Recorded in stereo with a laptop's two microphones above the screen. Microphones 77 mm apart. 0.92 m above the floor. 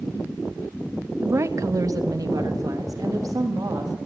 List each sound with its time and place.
1.2 s a woman speaking: 35° right (ahead or behind), 0.6 m; by 4.0 s 50° right (ahead or behind), 1.8 m